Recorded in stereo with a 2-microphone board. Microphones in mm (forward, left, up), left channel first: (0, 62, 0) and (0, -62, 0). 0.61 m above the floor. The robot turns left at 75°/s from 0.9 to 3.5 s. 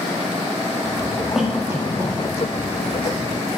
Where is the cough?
Centre (ahead or behind), 0.8 m; by 2.1 s 30° right (ahead or behind), 0.8 m.